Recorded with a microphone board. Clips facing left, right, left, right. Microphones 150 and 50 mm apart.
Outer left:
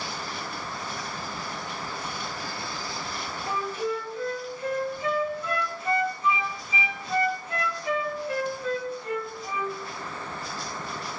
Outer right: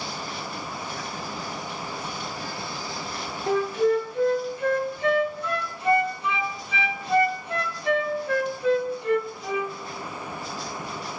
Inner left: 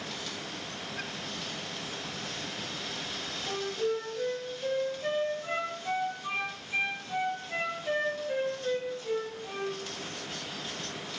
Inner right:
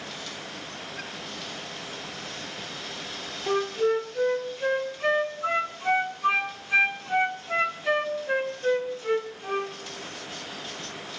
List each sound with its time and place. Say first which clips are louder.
3.5 s a flute: outer right 8 dB, inner right 8 dB; 70° right (ahead or behind), 2.5 m